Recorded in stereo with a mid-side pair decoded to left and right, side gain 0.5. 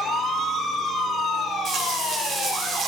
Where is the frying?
60° right, 5 m.